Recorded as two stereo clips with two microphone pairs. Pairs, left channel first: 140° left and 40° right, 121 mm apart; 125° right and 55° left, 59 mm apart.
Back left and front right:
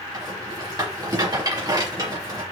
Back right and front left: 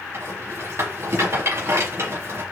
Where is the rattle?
15° left, 4 m.